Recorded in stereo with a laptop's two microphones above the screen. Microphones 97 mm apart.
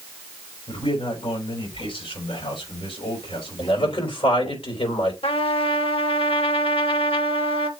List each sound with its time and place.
0.7 s a man speaking: 70° left (ahead or behind), 6 m
3.6 s a man speaking: 70° left (ahead or behind), 4.5 m
5.2 s a trumpet: 70° left (ahead or behind), 1.1 m